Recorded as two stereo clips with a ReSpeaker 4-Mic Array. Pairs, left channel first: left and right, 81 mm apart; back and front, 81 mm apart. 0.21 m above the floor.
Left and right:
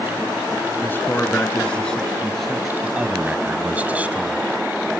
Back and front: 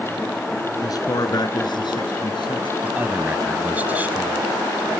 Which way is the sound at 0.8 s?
150° left.